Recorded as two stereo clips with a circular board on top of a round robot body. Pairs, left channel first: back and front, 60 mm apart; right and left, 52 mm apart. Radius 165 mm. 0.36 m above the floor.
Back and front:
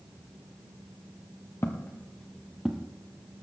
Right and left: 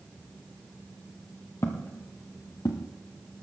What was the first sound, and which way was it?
Footsteps, 130° right.